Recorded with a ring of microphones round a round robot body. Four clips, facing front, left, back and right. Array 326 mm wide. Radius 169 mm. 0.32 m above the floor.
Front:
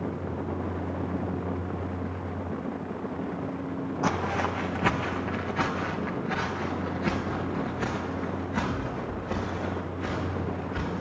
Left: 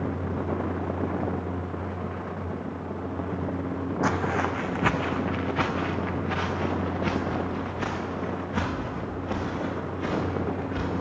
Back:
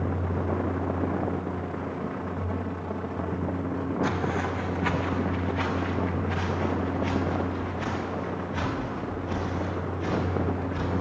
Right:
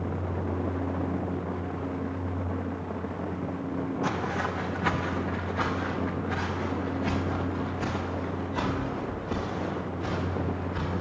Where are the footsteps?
45° left, 1.0 m; by 11.0 s 75° left, 7 m.